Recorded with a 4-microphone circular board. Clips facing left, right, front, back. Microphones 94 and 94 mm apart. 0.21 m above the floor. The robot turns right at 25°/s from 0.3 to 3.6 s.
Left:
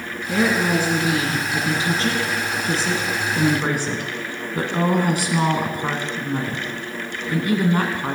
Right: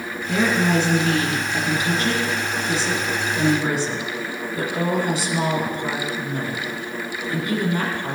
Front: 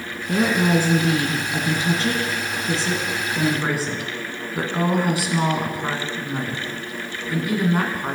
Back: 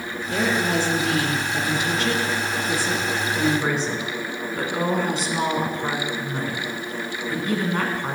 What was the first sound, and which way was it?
A woman speaking, straight ahead.